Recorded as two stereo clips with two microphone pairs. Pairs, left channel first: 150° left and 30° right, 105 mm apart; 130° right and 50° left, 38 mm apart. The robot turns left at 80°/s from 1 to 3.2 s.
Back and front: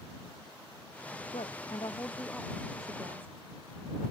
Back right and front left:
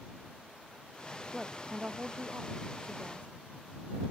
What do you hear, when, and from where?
1.3 s a woman speaking: 150° left; by 3.4 s straight ahead